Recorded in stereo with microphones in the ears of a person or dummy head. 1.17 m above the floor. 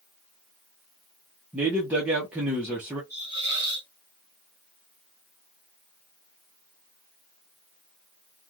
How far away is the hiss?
About 1.7 m.